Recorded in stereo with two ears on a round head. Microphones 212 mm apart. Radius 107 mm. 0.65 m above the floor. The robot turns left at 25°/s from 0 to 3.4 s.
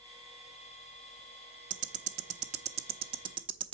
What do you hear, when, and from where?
1.7 s ticking: 30° right (ahead or behind), 0.7 m; by 3.8 s 20° right (ahead or behind), 0.7 m